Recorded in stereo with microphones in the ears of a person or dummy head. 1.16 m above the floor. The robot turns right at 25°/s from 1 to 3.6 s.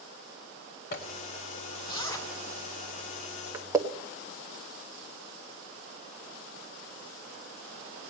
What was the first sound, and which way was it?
A zipper, 50° left (ahead or behind).